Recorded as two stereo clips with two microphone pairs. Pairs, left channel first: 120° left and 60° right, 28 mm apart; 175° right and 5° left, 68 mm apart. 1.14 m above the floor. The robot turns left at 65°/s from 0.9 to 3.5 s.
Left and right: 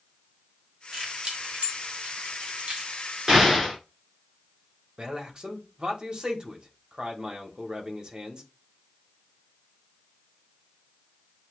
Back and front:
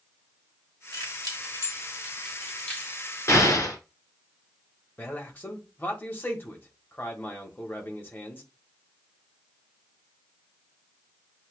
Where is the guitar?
No guitar in this recording.